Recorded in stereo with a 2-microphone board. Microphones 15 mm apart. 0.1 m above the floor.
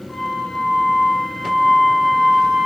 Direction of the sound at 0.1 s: 25° left (ahead or behind).